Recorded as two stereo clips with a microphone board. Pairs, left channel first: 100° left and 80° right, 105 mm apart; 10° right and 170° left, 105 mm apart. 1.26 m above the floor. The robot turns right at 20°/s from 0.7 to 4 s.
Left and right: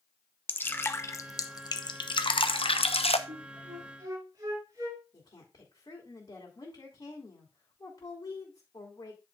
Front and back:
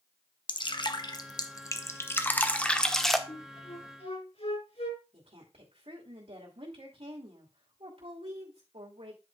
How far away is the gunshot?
No gunshot in this recording.